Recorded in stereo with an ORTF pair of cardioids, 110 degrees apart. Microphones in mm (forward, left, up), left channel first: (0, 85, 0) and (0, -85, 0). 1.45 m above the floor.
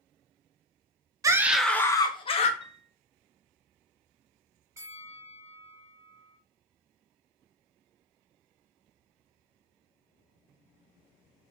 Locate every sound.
1.2 s a scream: 20° right, 0.6 m; by 2.5 s 40° left, 0.8 m
2.6 s a piano: 30° left, 0.7 m
4.8 s a bell: 15° right, 1.3 m